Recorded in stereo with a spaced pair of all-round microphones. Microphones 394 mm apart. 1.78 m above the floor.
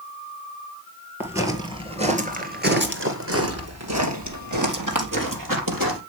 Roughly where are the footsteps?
Centre.